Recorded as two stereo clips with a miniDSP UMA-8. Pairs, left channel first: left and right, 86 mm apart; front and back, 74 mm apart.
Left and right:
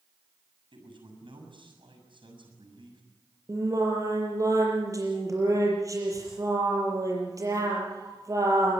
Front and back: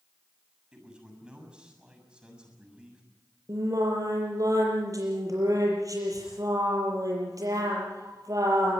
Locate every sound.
0.7 s a man speaking: 100° right, 7 m
3.5 s singing: 140° right, 6 m